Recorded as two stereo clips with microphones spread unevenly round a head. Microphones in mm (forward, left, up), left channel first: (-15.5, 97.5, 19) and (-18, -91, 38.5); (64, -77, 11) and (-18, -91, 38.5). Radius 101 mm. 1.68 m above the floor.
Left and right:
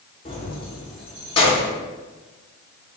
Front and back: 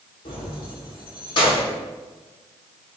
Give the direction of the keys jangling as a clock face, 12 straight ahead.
11 o'clock.